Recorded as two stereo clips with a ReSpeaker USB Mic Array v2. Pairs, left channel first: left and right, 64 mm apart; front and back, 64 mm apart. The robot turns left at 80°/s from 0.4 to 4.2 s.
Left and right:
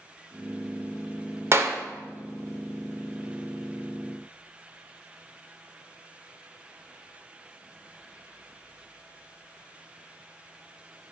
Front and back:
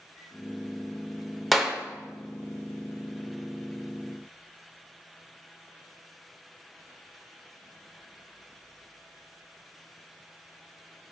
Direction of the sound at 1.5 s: 90° right.